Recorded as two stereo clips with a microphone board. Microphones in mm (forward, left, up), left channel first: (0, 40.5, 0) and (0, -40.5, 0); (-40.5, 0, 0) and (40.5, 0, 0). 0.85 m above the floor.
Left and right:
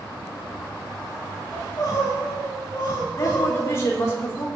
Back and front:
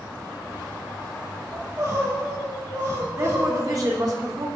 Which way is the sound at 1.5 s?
45° left.